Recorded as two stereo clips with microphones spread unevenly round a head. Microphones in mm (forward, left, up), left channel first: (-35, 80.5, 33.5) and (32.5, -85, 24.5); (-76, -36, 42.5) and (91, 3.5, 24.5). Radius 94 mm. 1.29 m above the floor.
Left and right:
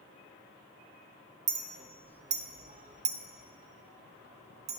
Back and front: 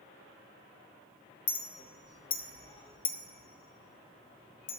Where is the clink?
120° right, 0.6 m.